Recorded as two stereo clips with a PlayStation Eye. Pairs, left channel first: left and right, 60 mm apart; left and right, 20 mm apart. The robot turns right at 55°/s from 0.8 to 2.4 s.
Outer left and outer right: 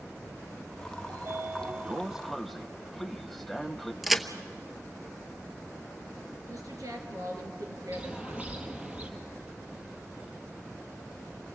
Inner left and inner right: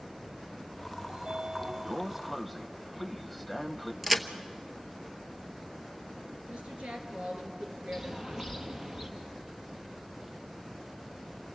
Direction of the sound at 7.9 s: 20° right (ahead or behind).